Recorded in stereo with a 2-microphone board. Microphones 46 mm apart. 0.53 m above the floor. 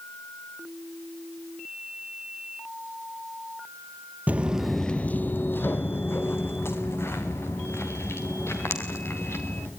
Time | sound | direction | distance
4.3 | footsteps | 35° right (ahead or behind) | 0.6 m